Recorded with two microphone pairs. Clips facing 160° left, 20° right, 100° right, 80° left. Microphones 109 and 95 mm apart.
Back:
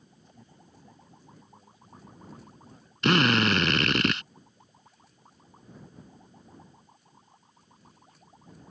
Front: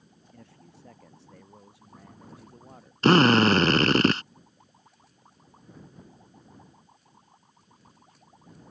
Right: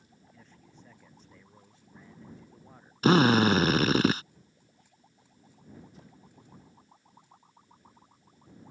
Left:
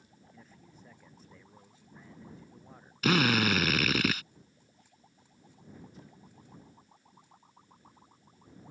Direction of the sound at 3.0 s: 55° right.